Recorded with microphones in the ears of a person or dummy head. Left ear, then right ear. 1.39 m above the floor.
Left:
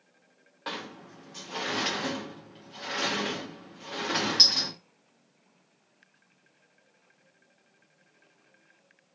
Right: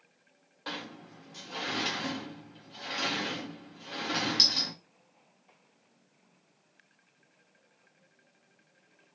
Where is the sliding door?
15° left (ahead or behind), 0.6 m.